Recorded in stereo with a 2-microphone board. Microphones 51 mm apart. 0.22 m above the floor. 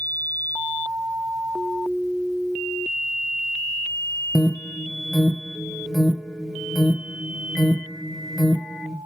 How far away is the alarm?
About 0.6 m.